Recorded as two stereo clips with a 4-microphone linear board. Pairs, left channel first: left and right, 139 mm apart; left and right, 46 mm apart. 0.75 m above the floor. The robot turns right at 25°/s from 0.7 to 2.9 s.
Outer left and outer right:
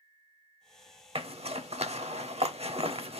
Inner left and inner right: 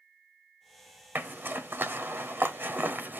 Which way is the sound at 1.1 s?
45° right (ahead or behind).